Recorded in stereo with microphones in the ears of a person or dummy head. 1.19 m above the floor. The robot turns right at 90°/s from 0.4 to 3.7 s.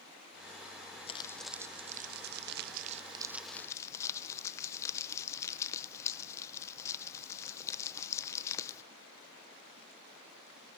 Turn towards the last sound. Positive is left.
turn(degrees=20)